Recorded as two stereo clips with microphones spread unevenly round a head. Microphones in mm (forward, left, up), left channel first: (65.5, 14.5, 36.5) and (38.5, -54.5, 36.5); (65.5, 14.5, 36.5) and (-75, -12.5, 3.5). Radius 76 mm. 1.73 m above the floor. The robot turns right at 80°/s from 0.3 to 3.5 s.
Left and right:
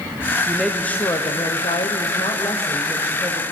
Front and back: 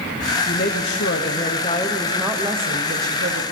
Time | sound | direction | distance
0.5 | a woman speaking | 35° right | 1.0 m